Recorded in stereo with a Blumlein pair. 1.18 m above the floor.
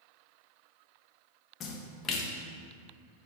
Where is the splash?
30° left, 1.3 m.